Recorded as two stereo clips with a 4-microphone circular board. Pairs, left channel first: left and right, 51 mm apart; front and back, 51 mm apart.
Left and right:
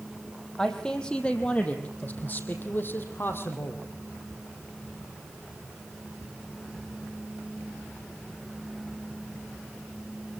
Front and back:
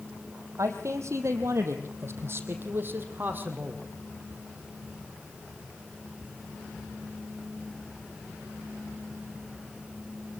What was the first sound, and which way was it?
A man speaking, 165° left.